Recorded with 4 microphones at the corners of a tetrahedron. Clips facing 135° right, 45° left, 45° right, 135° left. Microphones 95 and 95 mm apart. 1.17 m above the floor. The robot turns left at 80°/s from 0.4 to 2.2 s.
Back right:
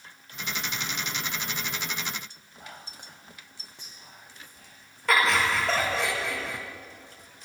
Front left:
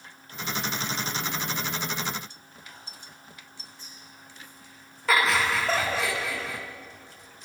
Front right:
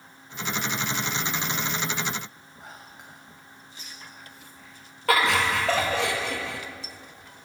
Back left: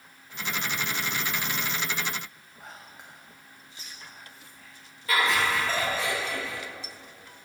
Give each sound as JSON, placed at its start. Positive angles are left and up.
{"t": 2.6, "sound": "whispering", "azimuth_deg": -135, "distance_m": 0.8}
{"t": 5.1, "sound": "laughter", "azimuth_deg": -45, "distance_m": 1.9}